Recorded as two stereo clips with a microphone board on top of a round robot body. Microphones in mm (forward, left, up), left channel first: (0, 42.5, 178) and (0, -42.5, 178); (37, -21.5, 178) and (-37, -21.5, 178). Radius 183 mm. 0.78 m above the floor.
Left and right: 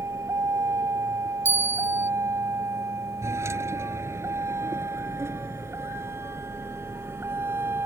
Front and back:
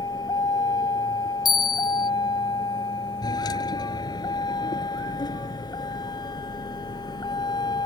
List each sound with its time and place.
0.0 s a vehicle: 30° right; by 7.9 s 25° right
1.4 s a bell: 20° right